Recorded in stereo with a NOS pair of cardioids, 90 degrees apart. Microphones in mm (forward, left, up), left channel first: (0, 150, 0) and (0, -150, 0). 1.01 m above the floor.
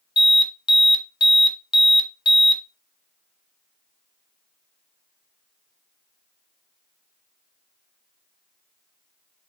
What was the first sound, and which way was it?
An alarm, 15° left.